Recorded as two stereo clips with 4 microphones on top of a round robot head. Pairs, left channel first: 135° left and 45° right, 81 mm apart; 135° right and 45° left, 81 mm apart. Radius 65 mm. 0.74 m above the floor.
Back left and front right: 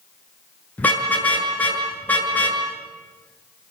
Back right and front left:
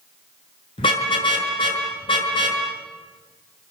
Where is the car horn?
155° right, 6.5 m.